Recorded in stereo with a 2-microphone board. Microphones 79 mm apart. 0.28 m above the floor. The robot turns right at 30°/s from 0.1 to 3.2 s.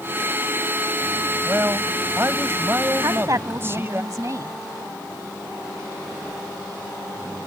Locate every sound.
1.4 s a man speaking: 115° right; by 4.0 s 60° right
3.0 s a woman speaking: 50° right (ahead or behind)